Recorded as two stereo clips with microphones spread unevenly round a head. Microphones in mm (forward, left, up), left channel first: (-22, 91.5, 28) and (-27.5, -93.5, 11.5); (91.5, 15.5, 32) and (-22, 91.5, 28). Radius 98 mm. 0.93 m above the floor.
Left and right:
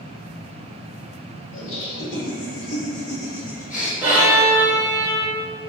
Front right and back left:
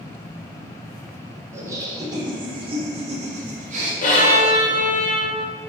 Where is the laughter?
80° left, 2 m; by 3.9 s 140° left, 1.8 m.